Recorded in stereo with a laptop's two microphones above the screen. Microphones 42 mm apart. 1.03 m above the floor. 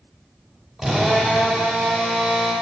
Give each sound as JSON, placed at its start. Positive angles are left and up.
{"t": 0.8, "sound": "a drill", "side_deg": 0, "distance_m": 5.5}